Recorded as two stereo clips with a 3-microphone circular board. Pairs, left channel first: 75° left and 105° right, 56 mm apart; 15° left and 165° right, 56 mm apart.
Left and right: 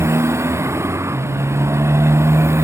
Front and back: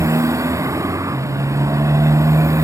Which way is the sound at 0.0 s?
145° right.